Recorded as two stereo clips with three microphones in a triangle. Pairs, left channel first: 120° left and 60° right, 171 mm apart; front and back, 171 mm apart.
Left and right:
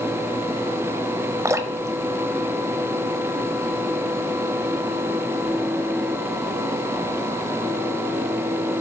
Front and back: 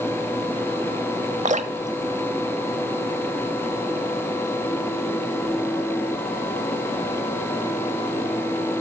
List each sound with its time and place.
1.4 s dripping: 130° right, 0.9 m